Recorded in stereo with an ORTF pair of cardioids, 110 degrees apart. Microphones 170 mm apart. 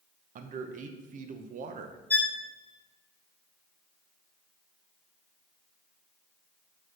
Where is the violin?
10° left, 0.7 m.